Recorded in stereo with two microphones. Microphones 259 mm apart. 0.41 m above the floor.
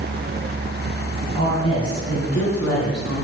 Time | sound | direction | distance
1.3 | a woman speaking | 60° left (ahead or behind) | 4.5 m